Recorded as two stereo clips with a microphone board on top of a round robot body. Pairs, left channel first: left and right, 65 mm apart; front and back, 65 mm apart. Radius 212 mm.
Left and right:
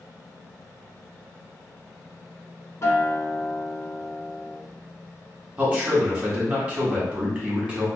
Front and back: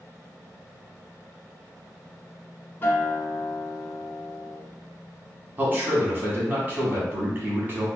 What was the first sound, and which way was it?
A guitar, 55° left.